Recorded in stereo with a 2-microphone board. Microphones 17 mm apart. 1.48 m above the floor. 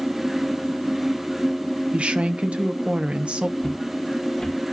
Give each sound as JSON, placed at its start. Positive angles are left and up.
{"t": 1.9, "sound": "a woman speaking", "side_deg": -85, "distance_m": 0.9}
{"t": 3.6, "sound": "footsteps", "side_deg": 35, "distance_m": 2.0}